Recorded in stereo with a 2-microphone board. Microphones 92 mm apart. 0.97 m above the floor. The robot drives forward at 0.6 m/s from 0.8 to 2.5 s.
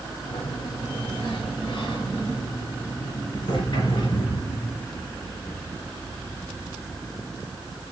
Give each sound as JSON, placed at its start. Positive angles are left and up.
{"t": 0.2, "sound": "a sliding door", "side_deg": 75, "distance_m": 3.0}